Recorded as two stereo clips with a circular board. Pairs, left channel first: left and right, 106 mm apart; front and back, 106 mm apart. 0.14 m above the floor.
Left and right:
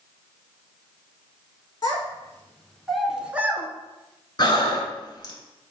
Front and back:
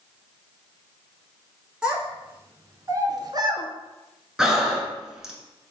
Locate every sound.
1.8 s a child speaking: 105° left, 0.8 m; by 3.7 s 155° right, 0.9 m
4.4 s breathing: 100° left, 0.9 m